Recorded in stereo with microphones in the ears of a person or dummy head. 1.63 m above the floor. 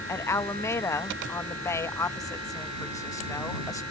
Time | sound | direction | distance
0.1 | a woman speaking | 15° left (ahead or behind) | ?